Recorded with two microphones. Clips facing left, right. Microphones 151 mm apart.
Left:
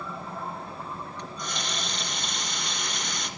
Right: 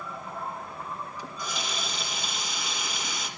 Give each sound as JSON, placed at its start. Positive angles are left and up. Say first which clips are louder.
{"t": 1.2, "sound": "a running tap", "louder": "even", "side_deg": -5, "distance_m": 3.0}